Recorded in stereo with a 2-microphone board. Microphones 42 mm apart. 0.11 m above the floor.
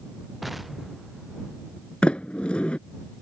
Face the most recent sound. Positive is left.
turn(degrees=25)  # may be behind; listen again after turning